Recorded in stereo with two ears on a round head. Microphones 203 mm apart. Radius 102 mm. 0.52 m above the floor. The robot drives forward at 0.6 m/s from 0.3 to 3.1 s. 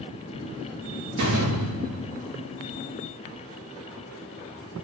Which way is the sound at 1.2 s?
85° right.